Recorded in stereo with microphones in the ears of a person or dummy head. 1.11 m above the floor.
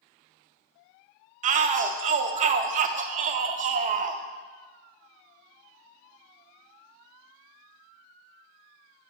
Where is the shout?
40° right (ahead or behind), 0.6 m.